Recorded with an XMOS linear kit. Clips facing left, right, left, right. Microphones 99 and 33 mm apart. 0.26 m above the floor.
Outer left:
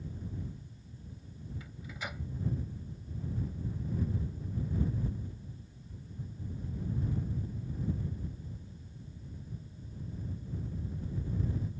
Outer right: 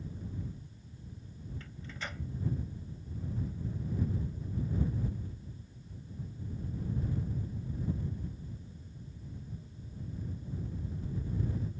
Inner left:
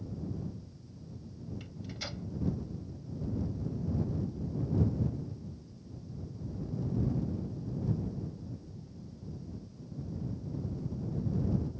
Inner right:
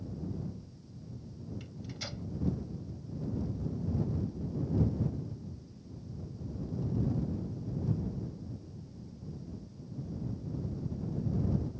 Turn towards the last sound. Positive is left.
turn(degrees=10)  # may be behind; listen again after turning